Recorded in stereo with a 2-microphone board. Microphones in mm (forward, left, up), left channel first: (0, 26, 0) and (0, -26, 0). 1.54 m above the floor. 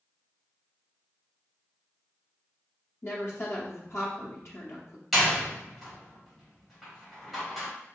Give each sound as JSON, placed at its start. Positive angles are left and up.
{"t": 3.0, "sound": "a woman speaking", "side_deg": 50, "distance_m": 0.6}
{"t": 5.1, "sound": "a door slam", "side_deg": 0, "distance_m": 1.6}